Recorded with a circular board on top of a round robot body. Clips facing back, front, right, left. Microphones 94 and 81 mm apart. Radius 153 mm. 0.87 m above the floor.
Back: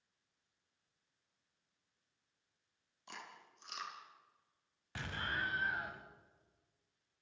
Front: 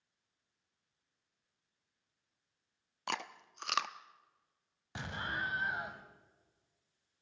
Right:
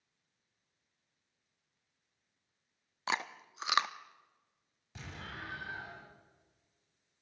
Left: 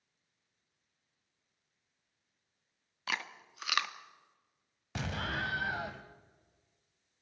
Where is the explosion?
70° left, 1.7 m.